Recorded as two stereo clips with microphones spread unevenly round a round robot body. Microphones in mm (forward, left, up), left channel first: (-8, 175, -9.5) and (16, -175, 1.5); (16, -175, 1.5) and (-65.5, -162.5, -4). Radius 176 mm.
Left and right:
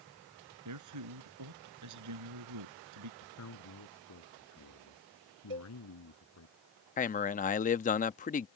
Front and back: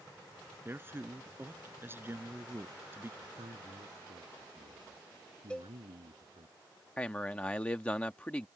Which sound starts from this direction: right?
A cowbell, at 5.5 s.